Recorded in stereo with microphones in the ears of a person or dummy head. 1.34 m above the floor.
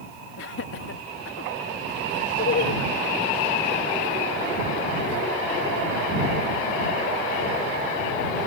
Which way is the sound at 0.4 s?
65° left (ahead or behind).